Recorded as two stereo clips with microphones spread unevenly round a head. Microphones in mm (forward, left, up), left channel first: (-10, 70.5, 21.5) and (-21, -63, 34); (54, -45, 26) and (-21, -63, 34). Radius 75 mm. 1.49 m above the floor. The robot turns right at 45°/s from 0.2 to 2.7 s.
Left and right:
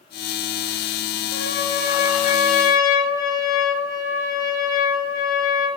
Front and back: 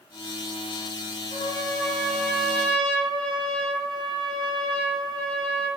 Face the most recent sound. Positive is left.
turn(degrees=145)